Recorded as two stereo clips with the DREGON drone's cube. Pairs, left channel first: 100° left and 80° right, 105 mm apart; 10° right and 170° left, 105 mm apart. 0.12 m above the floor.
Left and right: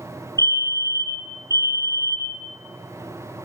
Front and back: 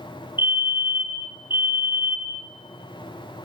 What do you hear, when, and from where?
0.4 s a fire alarm: 125° right, 3.5 m